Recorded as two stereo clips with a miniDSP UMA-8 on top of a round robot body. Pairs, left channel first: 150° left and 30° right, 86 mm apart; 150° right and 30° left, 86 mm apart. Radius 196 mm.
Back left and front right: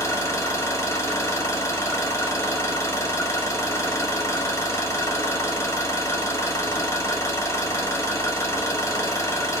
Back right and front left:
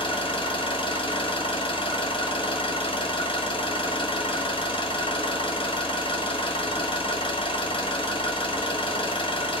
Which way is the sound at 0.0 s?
155° right.